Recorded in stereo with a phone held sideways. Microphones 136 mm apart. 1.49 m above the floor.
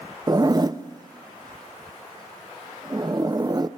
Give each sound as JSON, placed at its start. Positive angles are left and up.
{"t": 0.3, "sound": "a zipper", "side_deg": -30, "distance_m": 0.6}